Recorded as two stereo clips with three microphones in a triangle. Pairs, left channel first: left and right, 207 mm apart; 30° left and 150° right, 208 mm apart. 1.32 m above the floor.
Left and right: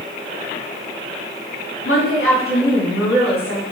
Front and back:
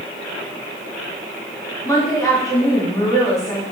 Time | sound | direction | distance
1.9 | a woman speaking | 105° left | 3.5 m